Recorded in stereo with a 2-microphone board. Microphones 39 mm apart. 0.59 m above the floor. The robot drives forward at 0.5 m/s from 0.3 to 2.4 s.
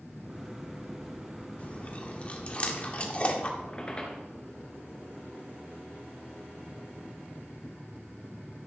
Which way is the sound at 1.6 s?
40° left (ahead or behind).